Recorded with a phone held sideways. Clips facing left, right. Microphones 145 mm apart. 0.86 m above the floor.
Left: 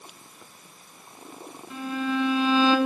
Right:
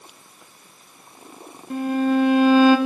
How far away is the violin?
About 1.3 m.